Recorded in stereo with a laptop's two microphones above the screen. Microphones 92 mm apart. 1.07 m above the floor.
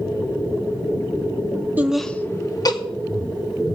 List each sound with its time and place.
1.8 s laughter: 15° right (ahead or behind), 0.6 m; by 2.8 s 45° left (ahead or behind), 1.0 m